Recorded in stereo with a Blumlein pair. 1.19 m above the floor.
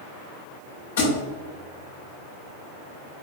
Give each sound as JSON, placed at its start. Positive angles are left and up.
{"t": 1.0, "sound": "a thud", "azimuth_deg": 55, "distance_m": 1.9}